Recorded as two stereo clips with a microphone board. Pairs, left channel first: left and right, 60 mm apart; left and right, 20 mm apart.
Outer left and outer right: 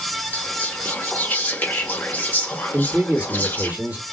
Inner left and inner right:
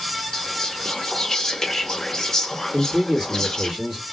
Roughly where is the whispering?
Left.